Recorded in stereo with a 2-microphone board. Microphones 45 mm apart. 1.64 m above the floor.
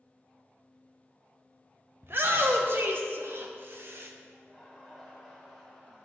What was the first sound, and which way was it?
A shout, 50° right (ahead or behind).